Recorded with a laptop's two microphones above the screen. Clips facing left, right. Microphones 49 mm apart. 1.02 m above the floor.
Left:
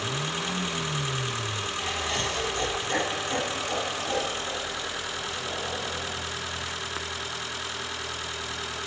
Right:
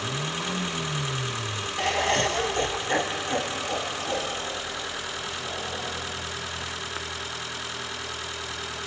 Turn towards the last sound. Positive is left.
turn(degrees=-5)  # may be behind; listen again after turning